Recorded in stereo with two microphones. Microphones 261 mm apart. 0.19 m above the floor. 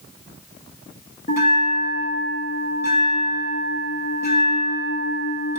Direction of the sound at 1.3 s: 35° left (ahead or behind).